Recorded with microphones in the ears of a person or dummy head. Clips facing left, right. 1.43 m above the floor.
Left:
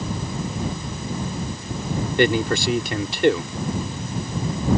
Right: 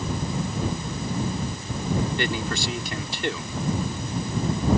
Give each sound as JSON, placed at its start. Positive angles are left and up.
{"t": 2.2, "sound": "a man speaking", "side_deg": 50}